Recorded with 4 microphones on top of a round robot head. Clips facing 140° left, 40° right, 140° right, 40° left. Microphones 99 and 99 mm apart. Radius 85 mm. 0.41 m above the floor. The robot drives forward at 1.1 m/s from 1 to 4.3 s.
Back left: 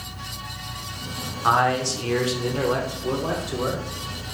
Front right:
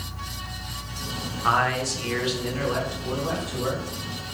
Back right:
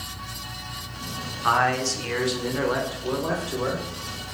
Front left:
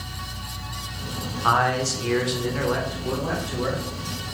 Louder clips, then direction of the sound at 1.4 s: Back left 3 dB, front left 1 dB; 80° left.